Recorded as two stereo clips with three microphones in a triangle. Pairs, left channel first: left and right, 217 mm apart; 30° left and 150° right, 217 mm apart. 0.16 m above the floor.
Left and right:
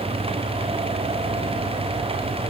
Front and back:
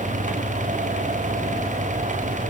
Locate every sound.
Only background noise.